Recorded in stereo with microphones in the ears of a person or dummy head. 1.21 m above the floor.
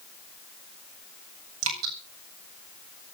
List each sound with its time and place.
1.6 s dripping: 85° right, 7 m